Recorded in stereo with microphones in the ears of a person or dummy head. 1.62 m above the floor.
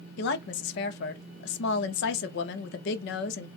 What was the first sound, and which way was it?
A woman speaking, 60° left (ahead or behind).